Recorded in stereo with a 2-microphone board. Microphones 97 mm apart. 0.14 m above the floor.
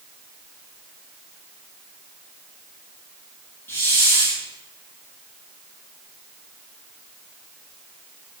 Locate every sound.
3.7 s a hiss: 25° left (ahead or behind), 2.5 m